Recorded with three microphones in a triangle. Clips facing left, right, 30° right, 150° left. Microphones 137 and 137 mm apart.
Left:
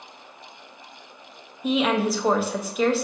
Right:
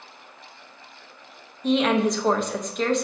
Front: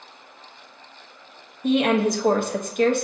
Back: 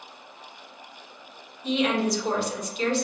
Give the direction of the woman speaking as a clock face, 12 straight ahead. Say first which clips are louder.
Right 1 dB, front 5 dB; 12 o'clock.